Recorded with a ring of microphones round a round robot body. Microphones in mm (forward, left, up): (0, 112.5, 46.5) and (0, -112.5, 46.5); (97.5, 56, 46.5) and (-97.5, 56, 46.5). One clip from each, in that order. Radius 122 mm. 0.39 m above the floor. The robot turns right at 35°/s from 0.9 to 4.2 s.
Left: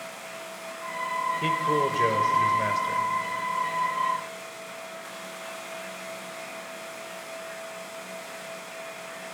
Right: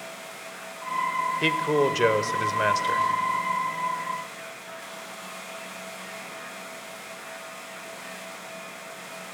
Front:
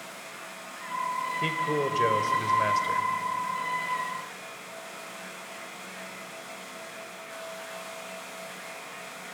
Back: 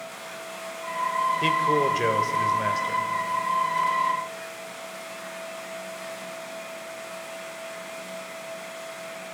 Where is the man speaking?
120° right, 1.3 m; by 3.1 s 65° right, 1.3 m.